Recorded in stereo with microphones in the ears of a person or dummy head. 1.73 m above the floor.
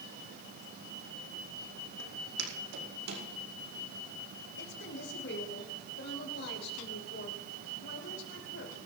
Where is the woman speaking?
60° left (ahead or behind), 5 m.